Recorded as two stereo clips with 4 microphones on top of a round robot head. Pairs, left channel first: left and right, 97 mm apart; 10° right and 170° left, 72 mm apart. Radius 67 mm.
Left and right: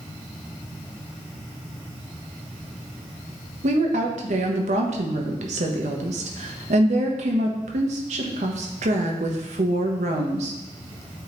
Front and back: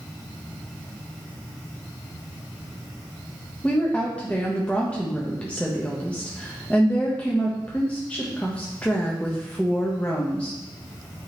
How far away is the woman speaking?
About 1.1 m.